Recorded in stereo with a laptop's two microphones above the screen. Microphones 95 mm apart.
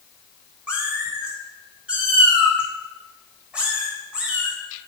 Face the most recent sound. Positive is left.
turn(degrees=-15)  # may be behind; listen again after turning